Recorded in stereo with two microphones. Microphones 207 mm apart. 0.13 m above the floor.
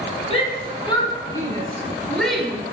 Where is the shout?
30° left (ahead or behind), 4.5 m; by 2.6 s 5° right (ahead or behind), 2.5 m.